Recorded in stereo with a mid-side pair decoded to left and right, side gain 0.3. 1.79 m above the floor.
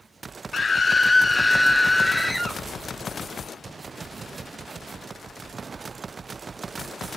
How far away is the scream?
About 0.5 m.